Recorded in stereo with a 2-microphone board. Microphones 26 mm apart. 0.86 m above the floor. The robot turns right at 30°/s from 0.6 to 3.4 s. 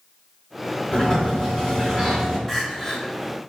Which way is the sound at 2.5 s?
Centre (ahead or behind).